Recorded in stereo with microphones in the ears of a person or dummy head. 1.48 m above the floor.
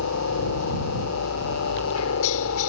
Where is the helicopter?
75° left (ahead or behind).